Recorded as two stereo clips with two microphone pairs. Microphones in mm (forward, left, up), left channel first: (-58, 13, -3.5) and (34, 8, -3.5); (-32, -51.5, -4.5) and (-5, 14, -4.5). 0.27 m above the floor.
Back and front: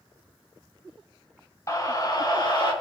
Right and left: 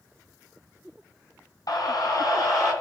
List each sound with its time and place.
1.7 s a scream: 130° right, 2 m; by 2.7 s 145° right, 3.5 m